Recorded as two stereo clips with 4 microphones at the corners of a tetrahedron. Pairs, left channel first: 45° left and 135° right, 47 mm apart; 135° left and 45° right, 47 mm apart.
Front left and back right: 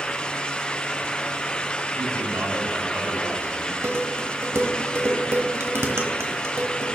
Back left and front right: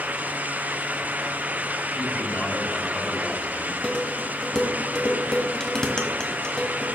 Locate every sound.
1.9 s a man speaking: 165° right, 3.5 m
3.8 s dishes clattering: 155° right, 1.3 m